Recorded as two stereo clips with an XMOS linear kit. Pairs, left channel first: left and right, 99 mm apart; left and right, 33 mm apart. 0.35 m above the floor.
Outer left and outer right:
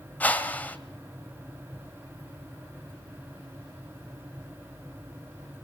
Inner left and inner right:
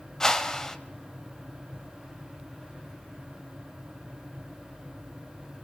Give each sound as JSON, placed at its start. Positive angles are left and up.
{"t": 0.2, "sound": "a whoosh", "side_deg": 15, "distance_m": 1.9}